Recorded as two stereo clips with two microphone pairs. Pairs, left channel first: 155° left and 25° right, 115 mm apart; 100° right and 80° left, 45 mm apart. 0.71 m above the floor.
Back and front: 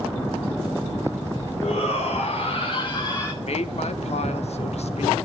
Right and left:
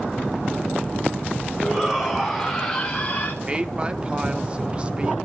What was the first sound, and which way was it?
A shout, 160° left.